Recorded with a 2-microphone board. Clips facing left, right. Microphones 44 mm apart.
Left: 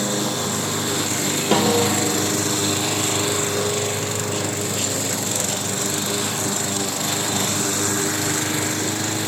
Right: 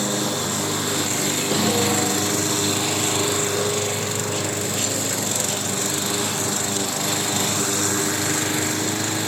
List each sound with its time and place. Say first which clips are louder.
1.5 s a snare drum: left 4 dB; 55° left (ahead or behind), 4.5 m